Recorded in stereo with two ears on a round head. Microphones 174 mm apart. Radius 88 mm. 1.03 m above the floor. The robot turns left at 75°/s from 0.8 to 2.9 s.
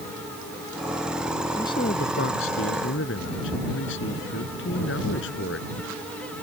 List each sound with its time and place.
1.6 s a man speaking: 165° left; by 5.7 s 65° left